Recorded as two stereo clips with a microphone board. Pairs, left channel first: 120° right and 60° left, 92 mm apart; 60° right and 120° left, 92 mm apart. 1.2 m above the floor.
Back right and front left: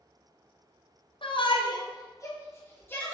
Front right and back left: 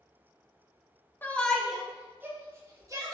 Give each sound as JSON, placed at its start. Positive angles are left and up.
{"t": 1.2, "sound": "a shout", "azimuth_deg": -130, "distance_m": 0.6}